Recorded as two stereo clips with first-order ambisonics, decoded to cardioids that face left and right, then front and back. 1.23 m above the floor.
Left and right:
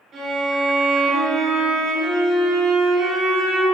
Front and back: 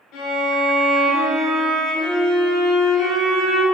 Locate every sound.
0.1 s a violin: 35° right, 1.8 m